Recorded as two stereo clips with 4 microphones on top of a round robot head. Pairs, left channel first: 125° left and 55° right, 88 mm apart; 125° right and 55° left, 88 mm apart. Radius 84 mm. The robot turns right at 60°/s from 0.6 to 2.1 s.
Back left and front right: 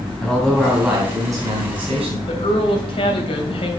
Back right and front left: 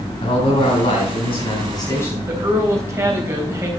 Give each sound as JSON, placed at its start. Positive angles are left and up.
{"t": 0.2, "sound": "a man speaking", "azimuth_deg": -150, "distance_m": 3.5}
{"t": 2.3, "sound": "a woman speaking", "azimuth_deg": 115, "distance_m": 3.0}